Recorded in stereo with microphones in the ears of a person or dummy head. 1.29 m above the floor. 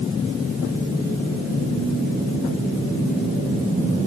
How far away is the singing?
I don't hear singing.